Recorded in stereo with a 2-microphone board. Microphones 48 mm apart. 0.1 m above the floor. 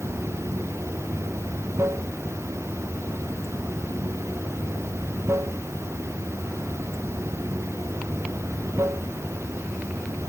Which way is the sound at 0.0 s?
75° right (ahead or behind).